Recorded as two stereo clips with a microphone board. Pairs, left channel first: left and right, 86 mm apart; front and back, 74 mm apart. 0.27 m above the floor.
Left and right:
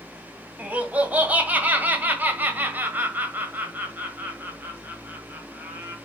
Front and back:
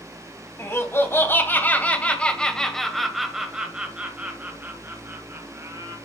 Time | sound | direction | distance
0.6 | laughter | 25° right | 2 m